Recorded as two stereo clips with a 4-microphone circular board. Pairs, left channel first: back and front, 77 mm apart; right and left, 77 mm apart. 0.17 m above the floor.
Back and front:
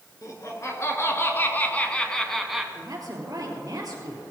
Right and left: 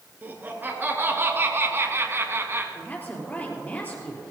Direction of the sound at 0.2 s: 150° left.